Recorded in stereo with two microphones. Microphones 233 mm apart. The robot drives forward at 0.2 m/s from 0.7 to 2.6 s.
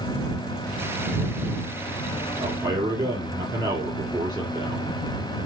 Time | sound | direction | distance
2.4 | a man speaking | 20° right (ahead or behind) | 2 m